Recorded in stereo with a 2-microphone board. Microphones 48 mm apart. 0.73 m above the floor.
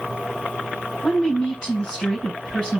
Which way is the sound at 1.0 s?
20° left (ahead or behind).